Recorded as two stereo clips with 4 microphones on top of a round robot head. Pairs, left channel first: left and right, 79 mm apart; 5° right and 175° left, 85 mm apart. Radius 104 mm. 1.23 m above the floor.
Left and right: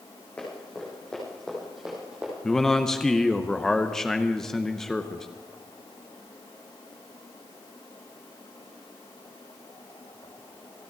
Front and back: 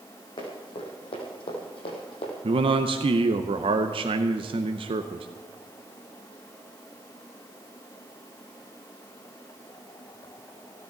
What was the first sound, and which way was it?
Running footsteps, 15° left.